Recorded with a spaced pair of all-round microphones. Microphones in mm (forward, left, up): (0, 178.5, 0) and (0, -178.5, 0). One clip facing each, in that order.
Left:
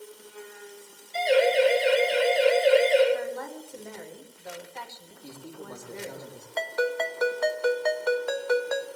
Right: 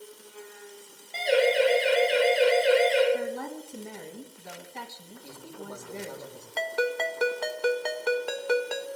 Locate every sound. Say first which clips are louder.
1.1 s a siren: left 1 dB; 90° right, 7 m; by 3.0 s 80° right, 6 m
3.1 s a woman speaking: right 1 dB; 40° right (ahead or behind), 2.5 m
5.2 s a man speaking: left 1 dB; 25° left (ahead or behind), 3 m
6.6 s a ringtone: left 1 dB; 40° right (ahead or behind), 1.1 m